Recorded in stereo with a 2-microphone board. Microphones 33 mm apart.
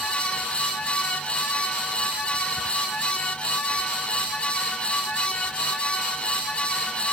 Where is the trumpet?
No trumpet in this recording.